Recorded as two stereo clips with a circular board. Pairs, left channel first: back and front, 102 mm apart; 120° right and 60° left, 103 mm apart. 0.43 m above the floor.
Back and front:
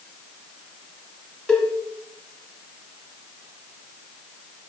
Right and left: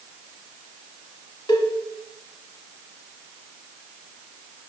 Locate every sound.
1.5 s a cowbell: 100° right, 1.4 m